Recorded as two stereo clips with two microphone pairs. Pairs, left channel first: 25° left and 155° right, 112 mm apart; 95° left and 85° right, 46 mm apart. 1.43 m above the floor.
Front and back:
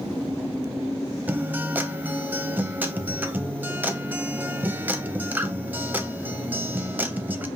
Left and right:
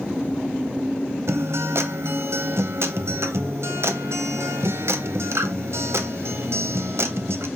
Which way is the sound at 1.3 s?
85° right.